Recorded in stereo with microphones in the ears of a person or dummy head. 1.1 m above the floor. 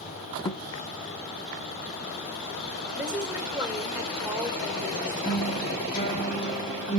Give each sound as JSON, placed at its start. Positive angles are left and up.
{"t": 0.5, "sound": "a thud", "side_deg": 25, "distance_m": 0.7}
{"t": 3.0, "sound": "a woman speaking", "side_deg": -5, "distance_m": 3.5}
{"t": 5.2, "sound": "a guitar", "side_deg": 25, "distance_m": 3.0}